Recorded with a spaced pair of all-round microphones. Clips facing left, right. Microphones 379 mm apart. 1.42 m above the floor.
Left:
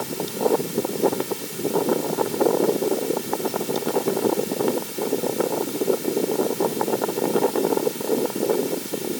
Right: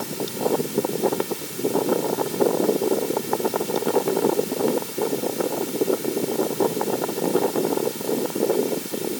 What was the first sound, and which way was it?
Only background noise.